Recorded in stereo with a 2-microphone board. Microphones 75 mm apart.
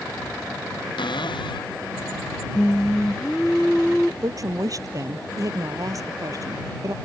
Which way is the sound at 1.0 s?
80° left.